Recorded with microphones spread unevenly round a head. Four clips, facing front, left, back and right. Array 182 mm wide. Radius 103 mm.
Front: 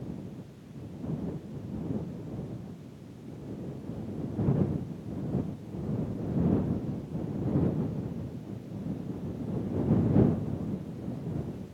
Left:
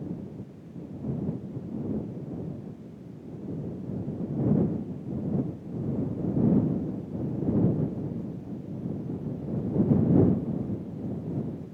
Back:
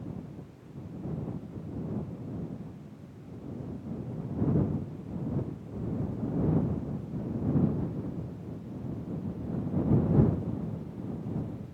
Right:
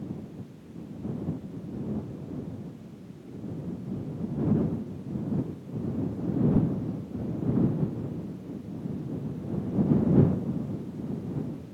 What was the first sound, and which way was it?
Only background noise.